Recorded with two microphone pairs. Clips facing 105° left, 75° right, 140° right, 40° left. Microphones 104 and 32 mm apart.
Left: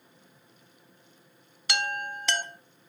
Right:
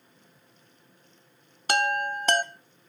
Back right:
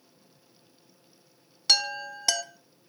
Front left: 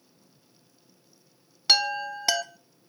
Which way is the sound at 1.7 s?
30° right.